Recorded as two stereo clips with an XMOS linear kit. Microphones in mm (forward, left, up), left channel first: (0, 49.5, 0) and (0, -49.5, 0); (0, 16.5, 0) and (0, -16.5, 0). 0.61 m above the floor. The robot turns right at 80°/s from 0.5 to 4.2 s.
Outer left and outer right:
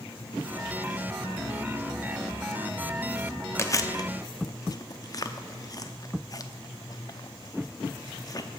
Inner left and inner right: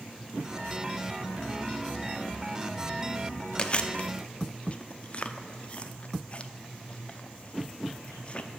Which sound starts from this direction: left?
Chewing, at 3.6 s.